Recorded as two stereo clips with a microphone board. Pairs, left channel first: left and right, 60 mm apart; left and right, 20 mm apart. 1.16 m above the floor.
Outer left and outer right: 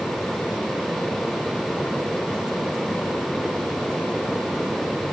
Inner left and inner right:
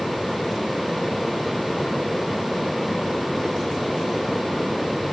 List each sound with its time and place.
Only background noise.